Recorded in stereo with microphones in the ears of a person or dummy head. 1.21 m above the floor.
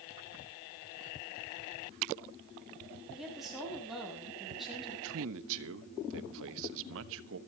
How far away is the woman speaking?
About 7 m.